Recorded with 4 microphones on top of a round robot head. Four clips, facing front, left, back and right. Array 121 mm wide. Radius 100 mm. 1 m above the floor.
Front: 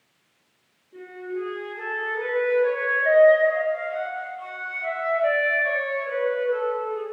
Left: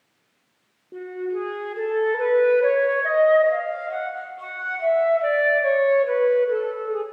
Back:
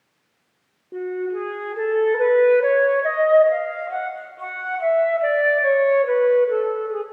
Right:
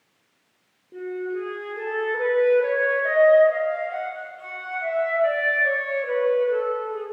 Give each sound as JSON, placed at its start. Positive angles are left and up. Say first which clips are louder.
{"t": 0.9, "sound": "a flute", "louder": "left 1 dB, back 7 dB", "azimuth_deg": 165, "distance_m": 0.6}